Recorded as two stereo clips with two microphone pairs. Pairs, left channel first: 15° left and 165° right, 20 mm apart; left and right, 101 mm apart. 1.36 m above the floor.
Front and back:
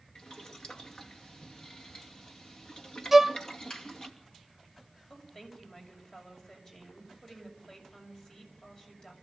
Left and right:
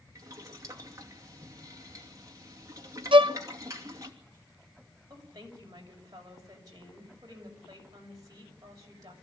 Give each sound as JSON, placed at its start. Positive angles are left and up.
{"t": 0.1, "sound": "boiling", "azimuth_deg": -35, "distance_m": 2.5}
{"t": 3.1, "sound": "a violin", "azimuth_deg": -95, "distance_m": 0.6}
{"t": 5.1, "sound": "a woman speaking", "azimuth_deg": -40, "distance_m": 6.5}